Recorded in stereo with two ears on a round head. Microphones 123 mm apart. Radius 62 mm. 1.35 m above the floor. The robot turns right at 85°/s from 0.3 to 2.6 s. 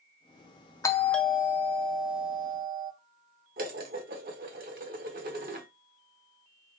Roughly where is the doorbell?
Behind left.